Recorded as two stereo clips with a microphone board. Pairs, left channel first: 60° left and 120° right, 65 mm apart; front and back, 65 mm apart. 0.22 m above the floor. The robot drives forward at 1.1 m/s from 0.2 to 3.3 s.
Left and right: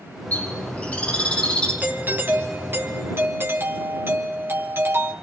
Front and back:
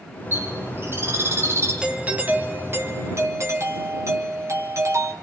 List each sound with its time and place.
0.3 s a bird: 125° left, 8 m; by 1.7 s 135° left, 8.5 m
1.8 s a doorbell: 120° right, 1.9 m; by 5.1 s 160° right, 3 m